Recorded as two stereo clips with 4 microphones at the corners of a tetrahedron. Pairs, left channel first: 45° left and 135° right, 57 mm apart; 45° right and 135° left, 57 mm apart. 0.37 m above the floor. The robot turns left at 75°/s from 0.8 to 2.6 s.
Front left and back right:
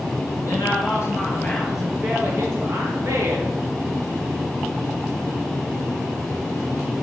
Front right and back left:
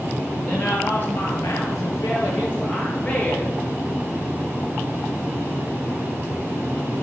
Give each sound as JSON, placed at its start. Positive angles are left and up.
{"t": 0.4, "sound": "a woman speaking", "azimuth_deg": 25, "distance_m": 5.5}